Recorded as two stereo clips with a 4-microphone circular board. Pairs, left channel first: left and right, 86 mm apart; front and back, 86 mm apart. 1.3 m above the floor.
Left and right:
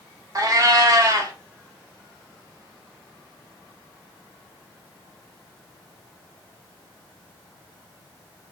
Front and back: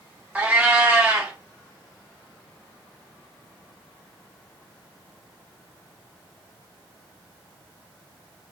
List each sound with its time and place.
0.3 s a cat meowing: 115° right, 0.7 m